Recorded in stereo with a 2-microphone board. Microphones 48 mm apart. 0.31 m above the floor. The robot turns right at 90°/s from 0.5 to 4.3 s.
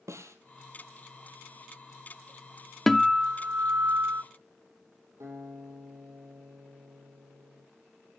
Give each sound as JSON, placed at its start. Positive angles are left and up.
{"t": 0.1, "sound": "a snare drum", "side_deg": -80, "distance_m": 1.6}
{"t": 2.9, "sound": "a guitar", "azimuth_deg": 175, "distance_m": 0.5}
{"t": 5.2, "sound": "a guitar", "side_deg": -80, "distance_m": 7.5}